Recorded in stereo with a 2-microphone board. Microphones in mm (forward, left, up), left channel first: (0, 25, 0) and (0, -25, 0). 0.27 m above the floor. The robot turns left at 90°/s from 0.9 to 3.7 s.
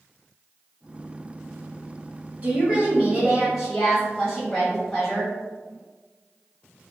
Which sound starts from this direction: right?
A woman speaking, at 2.4 s.